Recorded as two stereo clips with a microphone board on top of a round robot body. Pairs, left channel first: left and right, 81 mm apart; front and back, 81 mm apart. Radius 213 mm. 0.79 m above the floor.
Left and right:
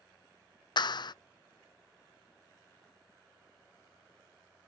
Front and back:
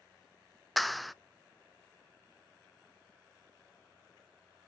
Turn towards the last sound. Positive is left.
turn(degrees=90)